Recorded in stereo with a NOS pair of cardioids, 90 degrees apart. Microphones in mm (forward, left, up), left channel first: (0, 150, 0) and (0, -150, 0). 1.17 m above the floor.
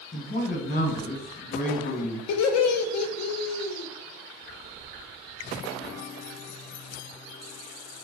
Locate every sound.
0.1 s a man speaking: 30° left, 1.0 m
2.3 s laughter: 60° left, 0.6 m